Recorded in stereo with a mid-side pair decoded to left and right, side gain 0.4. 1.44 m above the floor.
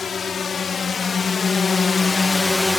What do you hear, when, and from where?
0.0 s a drone: 50° left; by 2.8 s 15° left